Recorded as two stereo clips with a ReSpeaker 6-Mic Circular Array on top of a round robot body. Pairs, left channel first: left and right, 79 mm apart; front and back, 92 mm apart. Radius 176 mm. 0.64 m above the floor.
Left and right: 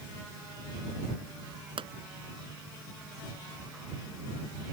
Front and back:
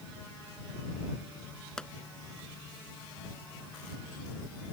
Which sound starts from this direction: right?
A pop, at 1.8 s.